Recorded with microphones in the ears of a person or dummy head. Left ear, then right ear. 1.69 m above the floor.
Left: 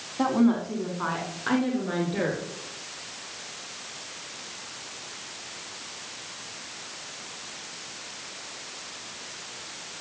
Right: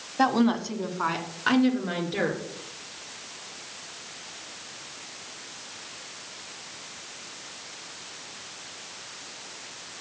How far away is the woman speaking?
About 1.4 m.